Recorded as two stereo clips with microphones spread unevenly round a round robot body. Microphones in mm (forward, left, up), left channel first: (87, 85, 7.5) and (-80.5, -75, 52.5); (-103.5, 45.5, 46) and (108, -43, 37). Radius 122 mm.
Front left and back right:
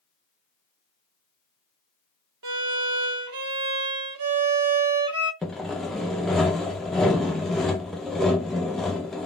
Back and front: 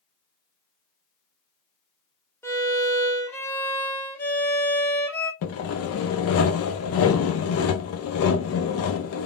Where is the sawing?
130° left, 0.6 m.